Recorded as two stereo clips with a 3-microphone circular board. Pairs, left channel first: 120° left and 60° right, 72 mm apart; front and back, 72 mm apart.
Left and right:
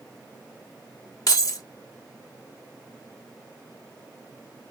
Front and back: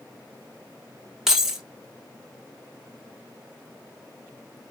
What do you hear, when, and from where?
1.3 s keys jangling: 95° left, 1.1 m